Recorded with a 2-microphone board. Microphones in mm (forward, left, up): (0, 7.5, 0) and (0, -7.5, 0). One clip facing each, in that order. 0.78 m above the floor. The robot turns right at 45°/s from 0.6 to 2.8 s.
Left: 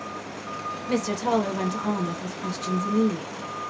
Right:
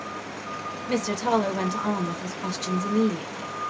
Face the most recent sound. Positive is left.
turn(degrees=-85)